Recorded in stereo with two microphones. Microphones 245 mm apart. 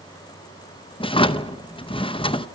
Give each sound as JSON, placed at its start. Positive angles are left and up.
{"t": 1.0, "sound": "a drawer", "side_deg": 20, "distance_m": 0.7}